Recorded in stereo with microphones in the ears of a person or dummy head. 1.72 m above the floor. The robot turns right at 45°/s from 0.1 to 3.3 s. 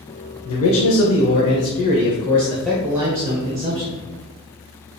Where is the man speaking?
80° left, 0.6 m; by 4.0 s 155° right, 0.6 m.